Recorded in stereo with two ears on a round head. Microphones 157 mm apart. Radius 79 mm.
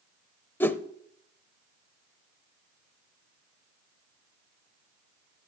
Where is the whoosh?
10° left (ahead or behind), 0.6 m.